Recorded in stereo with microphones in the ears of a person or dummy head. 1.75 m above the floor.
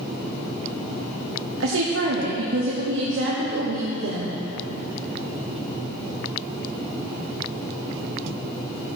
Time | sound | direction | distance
1.6 | a woman speaking | 80° right | 1.2 m